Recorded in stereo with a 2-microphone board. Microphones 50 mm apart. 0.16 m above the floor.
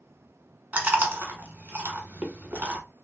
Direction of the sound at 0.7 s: 30° right (ahead or behind).